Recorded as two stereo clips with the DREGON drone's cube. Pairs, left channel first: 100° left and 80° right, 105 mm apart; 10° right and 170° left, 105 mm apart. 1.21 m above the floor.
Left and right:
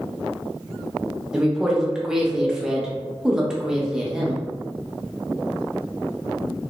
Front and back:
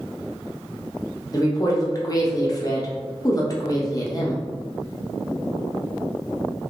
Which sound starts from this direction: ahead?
A woman speaking, at 1.3 s.